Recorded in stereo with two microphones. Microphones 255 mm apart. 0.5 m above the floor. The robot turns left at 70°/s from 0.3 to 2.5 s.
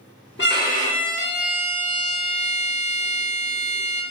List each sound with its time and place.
0.4 s a violin: 70° left, 0.8 m; by 4.0 s 75° right, 0.8 m